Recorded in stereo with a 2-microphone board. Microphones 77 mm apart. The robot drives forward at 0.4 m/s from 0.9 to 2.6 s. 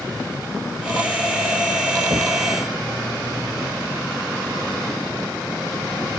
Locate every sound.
2.1 s knocking: 50° right (ahead or behind)